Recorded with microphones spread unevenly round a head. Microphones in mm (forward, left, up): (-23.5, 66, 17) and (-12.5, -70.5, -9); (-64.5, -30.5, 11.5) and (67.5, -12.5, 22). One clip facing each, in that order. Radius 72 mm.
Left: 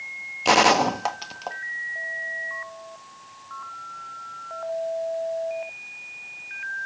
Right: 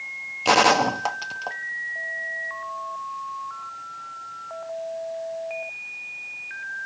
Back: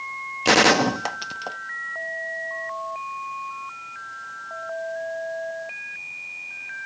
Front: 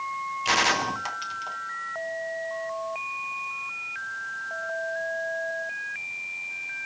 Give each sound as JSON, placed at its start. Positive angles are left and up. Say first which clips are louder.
{"t": 0.5, "sound": "a gunshot", "louder": "even, back 9 dB", "azimuth_deg": -175, "distance_m": 0.9}